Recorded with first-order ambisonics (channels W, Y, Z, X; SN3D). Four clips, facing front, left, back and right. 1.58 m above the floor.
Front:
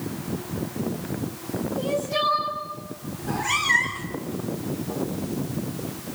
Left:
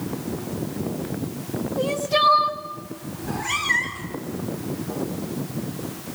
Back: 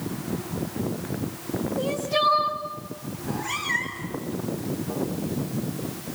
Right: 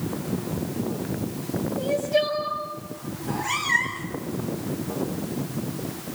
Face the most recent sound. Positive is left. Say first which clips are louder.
# left 3 dB, front 6 dB
turn(degrees=30)